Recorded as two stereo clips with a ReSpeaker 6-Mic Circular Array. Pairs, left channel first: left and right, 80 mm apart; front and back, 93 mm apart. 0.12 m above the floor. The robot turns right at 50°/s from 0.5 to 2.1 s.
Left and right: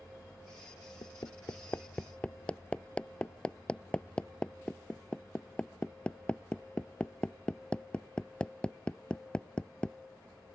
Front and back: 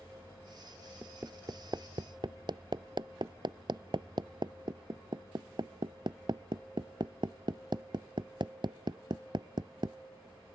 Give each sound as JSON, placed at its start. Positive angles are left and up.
{"t": 1.0, "sound": "hammering", "azimuth_deg": 110}